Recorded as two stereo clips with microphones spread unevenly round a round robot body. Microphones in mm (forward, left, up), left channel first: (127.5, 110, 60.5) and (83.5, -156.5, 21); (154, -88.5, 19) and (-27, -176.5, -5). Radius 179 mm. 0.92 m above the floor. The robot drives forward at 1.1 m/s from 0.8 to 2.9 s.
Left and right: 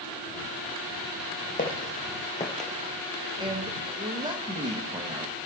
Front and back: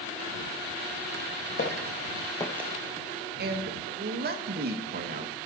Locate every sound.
1.6 s footsteps: 30° left, 2.0 m; by 2.7 s 160° left, 0.9 m
3.4 s a man speaking: 165° right, 0.8 m